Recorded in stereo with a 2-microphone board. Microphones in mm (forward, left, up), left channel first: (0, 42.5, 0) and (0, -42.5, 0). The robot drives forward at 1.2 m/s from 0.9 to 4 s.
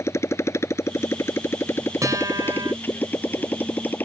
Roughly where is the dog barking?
I don't hear a dog barking.